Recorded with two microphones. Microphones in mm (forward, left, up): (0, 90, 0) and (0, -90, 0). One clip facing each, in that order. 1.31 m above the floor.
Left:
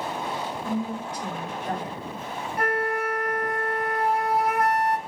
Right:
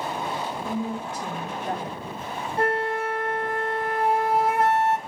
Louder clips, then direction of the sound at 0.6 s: Left 1 dB; 25° right (ahead or behind).